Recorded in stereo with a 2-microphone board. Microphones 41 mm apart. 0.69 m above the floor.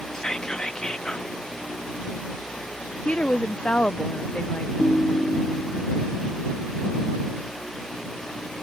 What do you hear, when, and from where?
0.1 s whispering: 20° left (ahead or behind)
3.0 s a woman speaking: 35° left (ahead or behind)
4.8 s a ringtone: 30° left (ahead or behind)